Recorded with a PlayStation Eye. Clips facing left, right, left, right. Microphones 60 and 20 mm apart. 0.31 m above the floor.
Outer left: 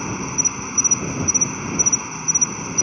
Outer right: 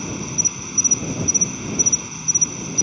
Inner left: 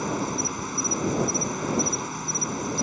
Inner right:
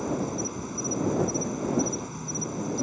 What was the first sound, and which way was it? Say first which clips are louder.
An insect: outer left 2 dB, inner left 2 dB; 35° left (ahead or behind).